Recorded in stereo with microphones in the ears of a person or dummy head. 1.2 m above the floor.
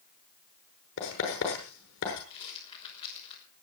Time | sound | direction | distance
1.0 | writing | 70° left (ahead or behind) | 7 m
2.3 | a rattle | 30° left (ahead or behind) | 6 m